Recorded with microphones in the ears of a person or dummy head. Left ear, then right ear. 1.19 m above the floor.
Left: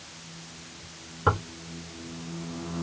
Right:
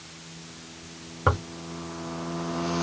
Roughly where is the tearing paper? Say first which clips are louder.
Even; right.